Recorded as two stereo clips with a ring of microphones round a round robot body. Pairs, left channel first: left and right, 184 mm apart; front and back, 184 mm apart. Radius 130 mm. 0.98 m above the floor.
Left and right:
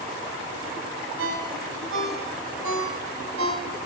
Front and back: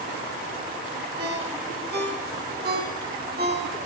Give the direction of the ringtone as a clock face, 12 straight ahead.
4 o'clock.